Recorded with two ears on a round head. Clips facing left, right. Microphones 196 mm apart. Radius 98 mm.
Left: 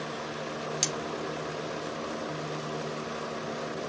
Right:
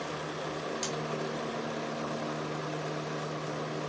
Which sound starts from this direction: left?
Cutlery clinking, at 0.8 s.